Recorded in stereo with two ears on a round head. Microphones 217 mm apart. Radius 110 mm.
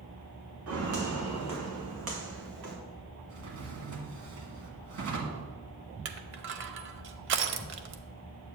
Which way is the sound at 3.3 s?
65° right (ahead or behind).